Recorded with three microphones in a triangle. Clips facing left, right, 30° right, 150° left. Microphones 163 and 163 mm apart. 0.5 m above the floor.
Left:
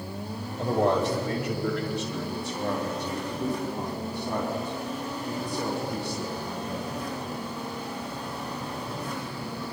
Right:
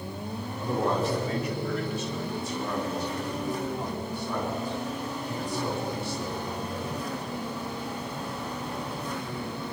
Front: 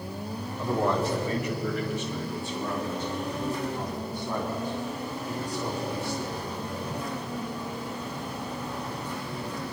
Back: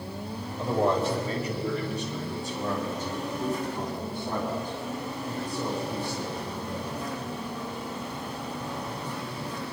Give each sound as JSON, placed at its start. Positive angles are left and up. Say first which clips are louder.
{"t": 0.6, "sound": "a man speaking", "louder": "left 4 dB, back 1 dB", "azimuth_deg": 85, "distance_m": 1.9}